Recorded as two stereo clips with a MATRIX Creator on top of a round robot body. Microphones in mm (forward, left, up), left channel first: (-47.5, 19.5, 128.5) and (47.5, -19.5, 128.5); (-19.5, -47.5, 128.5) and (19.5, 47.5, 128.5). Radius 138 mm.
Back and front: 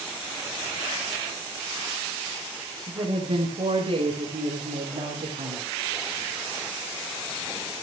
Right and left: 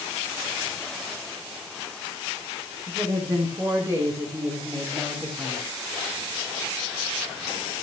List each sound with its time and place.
2.9 s a woman speaking: 15° left, 4.5 m; by 5.8 s 10° right, 4.5 m